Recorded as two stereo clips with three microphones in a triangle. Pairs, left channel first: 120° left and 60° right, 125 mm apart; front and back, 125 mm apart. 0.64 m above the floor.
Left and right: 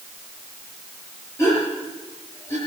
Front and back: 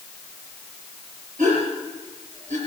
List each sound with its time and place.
1.4 s a gasp: 170° right, 5.5 m